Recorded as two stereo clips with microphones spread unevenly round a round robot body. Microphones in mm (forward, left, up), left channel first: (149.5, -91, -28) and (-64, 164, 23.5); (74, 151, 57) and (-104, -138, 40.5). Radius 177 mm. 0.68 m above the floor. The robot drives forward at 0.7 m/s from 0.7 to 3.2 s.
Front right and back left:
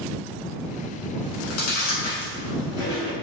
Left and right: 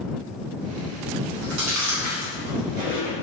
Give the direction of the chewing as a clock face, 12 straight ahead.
2 o'clock.